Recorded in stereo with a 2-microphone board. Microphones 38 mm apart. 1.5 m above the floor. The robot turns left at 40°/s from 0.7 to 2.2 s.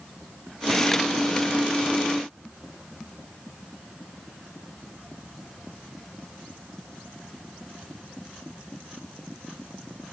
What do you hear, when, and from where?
Only background noise.